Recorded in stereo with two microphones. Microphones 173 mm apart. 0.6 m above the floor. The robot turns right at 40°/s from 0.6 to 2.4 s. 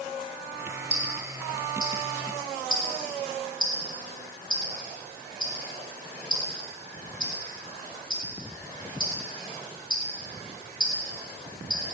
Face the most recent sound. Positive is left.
turn(degrees=30)  # may be behind; listen again after turning